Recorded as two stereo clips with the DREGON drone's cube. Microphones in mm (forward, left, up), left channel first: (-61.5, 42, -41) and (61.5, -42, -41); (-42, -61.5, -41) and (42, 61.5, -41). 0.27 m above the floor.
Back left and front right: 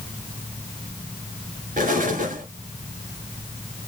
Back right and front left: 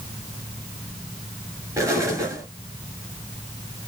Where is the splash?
No splash in this recording.